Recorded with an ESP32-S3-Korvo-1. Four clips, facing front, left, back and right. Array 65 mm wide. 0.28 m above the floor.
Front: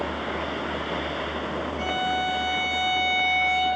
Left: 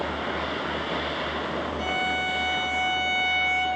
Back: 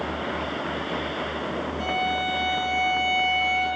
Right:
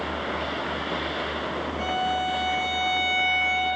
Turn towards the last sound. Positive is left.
turn(degrees=-50)